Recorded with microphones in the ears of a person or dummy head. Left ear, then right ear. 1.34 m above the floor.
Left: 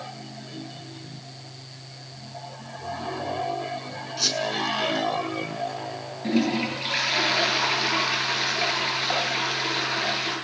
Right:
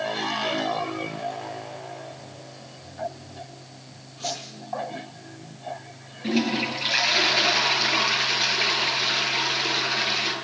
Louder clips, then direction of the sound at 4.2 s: Left 7 dB; 85° left.